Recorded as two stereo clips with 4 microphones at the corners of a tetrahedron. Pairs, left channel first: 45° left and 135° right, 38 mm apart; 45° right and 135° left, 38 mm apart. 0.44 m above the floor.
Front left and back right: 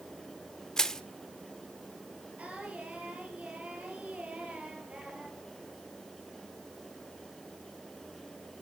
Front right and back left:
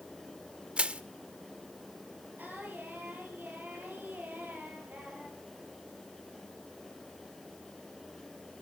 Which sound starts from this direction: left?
Crushing, at 0.8 s.